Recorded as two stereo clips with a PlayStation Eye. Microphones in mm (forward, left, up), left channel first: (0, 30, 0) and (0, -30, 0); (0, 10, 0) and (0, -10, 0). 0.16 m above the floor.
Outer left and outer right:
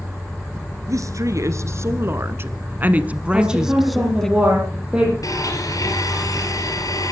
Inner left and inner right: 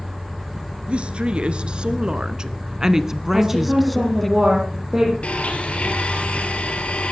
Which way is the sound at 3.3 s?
15° right (ahead or behind).